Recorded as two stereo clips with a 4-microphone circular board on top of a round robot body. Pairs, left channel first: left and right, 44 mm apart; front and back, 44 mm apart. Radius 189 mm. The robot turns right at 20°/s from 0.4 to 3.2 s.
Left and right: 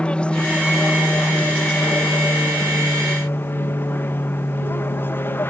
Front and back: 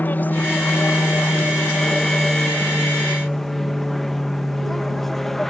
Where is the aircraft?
30° left; by 5.5 s 85° left.